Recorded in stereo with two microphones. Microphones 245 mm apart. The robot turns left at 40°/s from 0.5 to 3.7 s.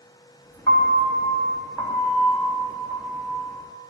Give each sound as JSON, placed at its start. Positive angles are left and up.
{"t": 0.7, "sound": "a piano", "side_deg": 20, "distance_m": 1.3}